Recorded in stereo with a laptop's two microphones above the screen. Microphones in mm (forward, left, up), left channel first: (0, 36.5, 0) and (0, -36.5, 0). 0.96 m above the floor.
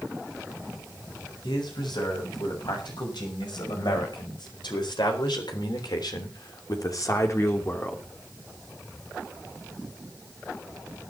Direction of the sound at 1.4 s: 75° left (ahead or behind).